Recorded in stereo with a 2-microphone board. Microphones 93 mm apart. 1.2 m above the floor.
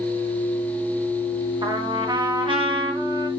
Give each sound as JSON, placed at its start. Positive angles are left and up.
{"t": 1.6, "sound": "a trumpet", "side_deg": -60, "distance_m": 1.9}